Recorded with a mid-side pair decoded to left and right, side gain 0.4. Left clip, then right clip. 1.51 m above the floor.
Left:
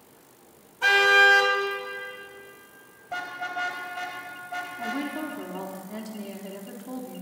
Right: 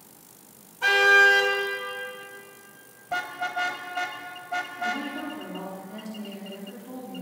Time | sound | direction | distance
0.8 | a car horn | 15° left | 4.5 m
3.1 | a car horn | 30° right | 4 m
4.8 | a woman speaking | 45° left | 4.5 m